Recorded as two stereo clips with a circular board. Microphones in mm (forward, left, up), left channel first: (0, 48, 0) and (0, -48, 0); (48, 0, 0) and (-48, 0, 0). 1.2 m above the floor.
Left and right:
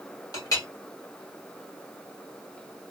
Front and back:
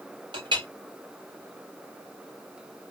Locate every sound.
0.3 s a clink: 140° left, 1.2 m